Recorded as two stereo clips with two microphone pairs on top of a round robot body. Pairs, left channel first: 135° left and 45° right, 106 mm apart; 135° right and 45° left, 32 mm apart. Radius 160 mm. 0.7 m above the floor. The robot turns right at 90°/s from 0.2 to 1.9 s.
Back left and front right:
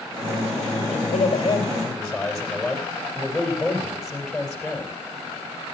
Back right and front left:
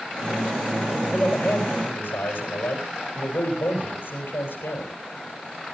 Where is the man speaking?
135° left, 4 m; by 4.9 s 135° right, 4 m.